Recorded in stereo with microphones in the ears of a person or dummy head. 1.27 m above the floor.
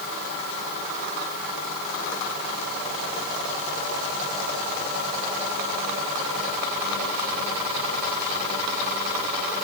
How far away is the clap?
I don't hear a clap.